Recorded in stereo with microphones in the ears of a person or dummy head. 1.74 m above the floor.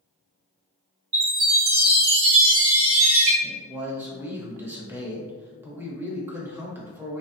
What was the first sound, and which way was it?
A chime, 50° right (ahead or behind).